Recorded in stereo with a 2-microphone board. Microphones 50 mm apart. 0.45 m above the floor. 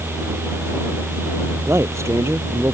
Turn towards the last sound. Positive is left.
turn(degrees=-65)  # may be behind; listen again after turning